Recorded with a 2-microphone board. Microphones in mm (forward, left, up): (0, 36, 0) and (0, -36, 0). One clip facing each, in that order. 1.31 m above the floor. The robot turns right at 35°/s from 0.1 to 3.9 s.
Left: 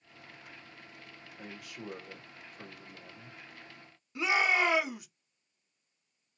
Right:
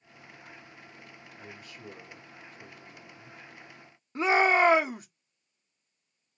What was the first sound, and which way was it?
A man speaking, 95° left.